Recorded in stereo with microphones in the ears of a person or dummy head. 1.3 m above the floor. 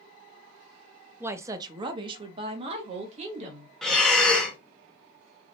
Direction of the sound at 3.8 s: 10° left (ahead or behind).